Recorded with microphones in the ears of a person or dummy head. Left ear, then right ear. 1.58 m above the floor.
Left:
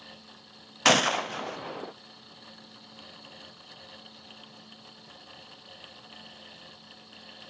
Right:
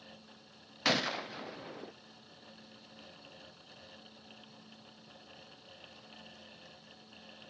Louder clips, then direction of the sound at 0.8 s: Left 9 dB; 35° left (ahead or behind).